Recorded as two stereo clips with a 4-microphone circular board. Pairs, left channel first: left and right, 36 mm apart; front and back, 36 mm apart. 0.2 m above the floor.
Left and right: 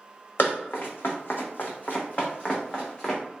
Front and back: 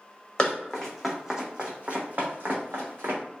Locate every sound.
0.4 s running footsteps: 70° left, 0.9 m; by 3.2 s 160° left, 1.2 m